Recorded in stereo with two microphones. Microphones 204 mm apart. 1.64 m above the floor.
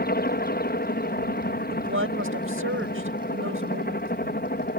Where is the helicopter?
50° left (ahead or behind).